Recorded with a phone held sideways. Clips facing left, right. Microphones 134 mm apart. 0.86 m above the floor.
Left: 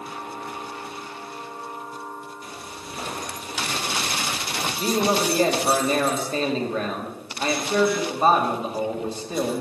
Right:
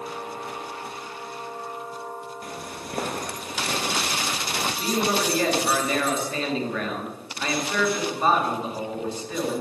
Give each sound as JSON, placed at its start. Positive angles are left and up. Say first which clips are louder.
{"t": 2.4, "sound": "footsteps", "louder": "right 2 dB", "side_deg": -55, "distance_m": 1.4}
{"t": 4.8, "sound": "a man speaking", "louder": "left 4 dB", "side_deg": 30, "distance_m": 2.0}